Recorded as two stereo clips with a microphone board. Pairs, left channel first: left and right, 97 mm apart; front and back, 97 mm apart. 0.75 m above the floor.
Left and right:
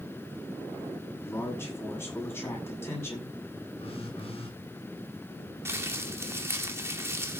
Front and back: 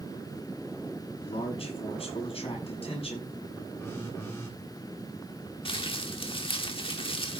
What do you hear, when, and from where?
1.2 s a man speaking: 25° left, 7 m
3.8 s a phone buzzing: 65° left, 6.5 m
5.7 s crumpling: 25° right, 1.7 m